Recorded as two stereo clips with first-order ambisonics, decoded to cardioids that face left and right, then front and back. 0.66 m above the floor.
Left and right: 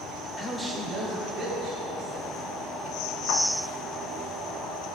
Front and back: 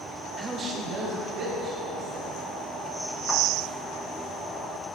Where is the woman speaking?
110° left, 0.5 m; by 2.4 s 145° right, 2.5 m.